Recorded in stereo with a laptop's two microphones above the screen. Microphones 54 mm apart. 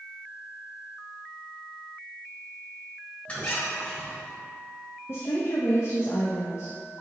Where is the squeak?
30° left (ahead or behind), 1.4 m.